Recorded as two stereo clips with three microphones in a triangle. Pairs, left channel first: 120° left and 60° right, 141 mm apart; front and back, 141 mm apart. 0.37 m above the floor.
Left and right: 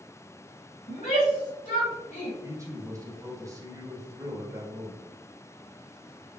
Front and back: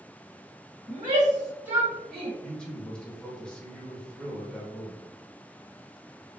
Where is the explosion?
No explosion in this recording.